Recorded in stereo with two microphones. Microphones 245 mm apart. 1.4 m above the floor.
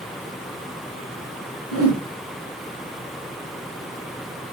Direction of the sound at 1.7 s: 75° right (ahead or behind).